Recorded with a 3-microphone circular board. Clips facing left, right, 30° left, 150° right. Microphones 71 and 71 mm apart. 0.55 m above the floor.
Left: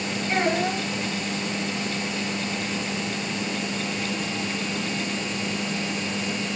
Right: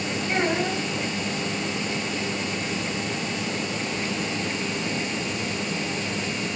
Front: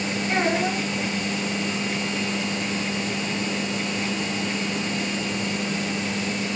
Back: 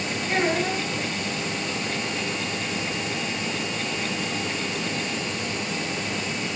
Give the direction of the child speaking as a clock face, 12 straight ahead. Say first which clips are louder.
Left 1 dB, front 1 dB; 12 o'clock.